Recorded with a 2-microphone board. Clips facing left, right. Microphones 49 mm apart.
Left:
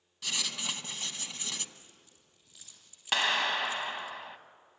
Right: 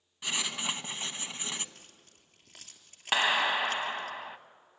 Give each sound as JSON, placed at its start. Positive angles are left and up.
{"t": 0.2, "sound": "writing", "side_deg": -25, "distance_m": 0.9}
{"t": 1.8, "sound": "keys jangling", "side_deg": -65, "distance_m": 3.0}
{"t": 3.1, "sound": "a clap", "side_deg": -10, "distance_m": 0.8}